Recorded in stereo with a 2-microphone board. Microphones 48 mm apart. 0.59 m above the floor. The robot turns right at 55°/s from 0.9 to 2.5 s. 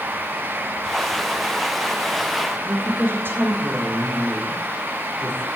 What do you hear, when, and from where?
2.6 s a woman speaking: 50° right (ahead or behind), 1.6 m